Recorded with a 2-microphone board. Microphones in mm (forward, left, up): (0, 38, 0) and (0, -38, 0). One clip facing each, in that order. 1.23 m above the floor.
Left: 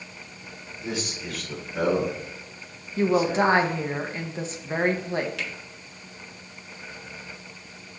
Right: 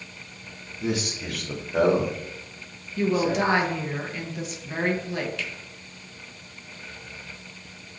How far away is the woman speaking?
About 1.0 m.